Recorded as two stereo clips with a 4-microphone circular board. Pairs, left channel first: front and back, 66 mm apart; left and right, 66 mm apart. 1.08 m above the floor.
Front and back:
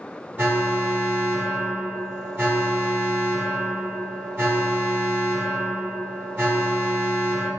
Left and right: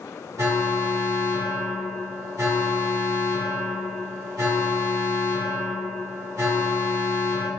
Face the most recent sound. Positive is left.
turn(degrees=-120)